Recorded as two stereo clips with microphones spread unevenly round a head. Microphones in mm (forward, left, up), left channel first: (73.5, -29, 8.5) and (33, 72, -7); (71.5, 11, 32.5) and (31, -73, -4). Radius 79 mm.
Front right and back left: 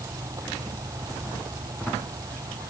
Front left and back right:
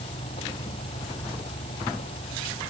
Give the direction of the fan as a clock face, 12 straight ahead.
10 o'clock.